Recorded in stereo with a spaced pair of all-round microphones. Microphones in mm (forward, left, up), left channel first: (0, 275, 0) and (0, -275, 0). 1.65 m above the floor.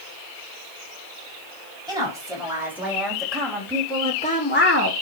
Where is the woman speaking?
5° right (ahead or behind), 4.5 m; by 4.9 s 25° left (ahead or behind), 1.5 m.